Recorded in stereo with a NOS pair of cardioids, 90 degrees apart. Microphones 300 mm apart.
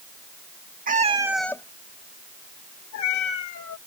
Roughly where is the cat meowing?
Ahead right.